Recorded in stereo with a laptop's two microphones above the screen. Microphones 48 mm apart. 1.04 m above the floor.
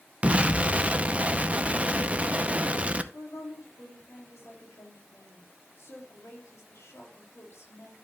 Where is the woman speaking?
70° left (ahead or behind), 3 m.